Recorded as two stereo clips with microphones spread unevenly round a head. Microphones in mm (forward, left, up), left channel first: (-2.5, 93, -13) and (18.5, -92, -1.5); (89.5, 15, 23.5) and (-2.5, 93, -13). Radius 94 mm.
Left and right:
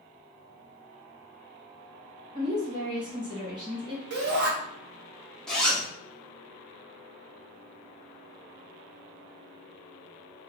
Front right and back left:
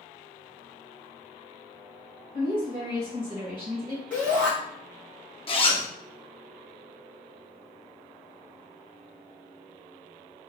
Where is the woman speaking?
150° right, 1.6 m.